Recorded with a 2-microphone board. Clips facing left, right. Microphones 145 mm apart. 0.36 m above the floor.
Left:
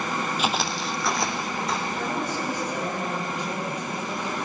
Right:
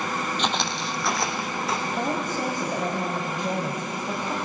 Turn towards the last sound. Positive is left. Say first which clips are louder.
# right 1 dB
turn(degrees=-50)  # may be behind; listen again after turning